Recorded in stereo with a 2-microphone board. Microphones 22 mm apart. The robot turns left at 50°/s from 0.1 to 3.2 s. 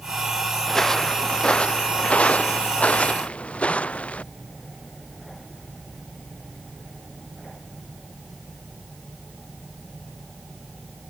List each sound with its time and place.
0.7 s footsteps: 15° left (ahead or behind); by 4.2 s 80° left